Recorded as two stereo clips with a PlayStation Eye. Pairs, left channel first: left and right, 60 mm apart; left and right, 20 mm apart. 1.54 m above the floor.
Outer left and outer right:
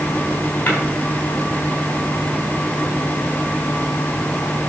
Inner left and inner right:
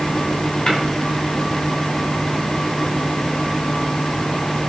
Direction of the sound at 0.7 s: 35° left (ahead or behind).